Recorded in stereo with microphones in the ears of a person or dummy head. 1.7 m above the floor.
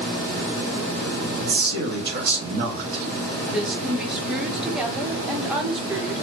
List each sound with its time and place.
1.4 s a man speaking: 55° right (ahead or behind), 0.9 m
3.5 s a woman speaking: centre (ahead or behind), 0.8 m